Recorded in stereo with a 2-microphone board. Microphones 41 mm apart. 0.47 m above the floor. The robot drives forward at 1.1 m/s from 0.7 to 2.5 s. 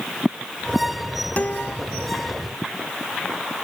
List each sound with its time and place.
1.4 s a guitar: 35° left (ahead or behind)